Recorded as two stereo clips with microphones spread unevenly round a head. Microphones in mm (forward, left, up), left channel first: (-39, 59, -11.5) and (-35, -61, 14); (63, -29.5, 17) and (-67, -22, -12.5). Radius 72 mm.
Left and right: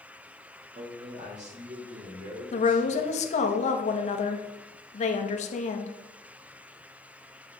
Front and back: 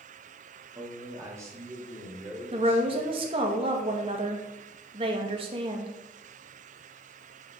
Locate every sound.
0.8 s a man speaking: 120° right, 2 m; by 3.4 s 105° right, 4.5 m
2.5 s a woman speaking: 120° left, 1.2 m